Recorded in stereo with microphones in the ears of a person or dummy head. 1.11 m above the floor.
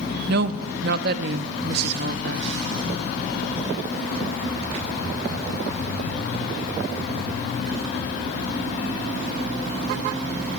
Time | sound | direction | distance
0.3 | a woman speaking | 65° right (ahead or behind) | 1.6 m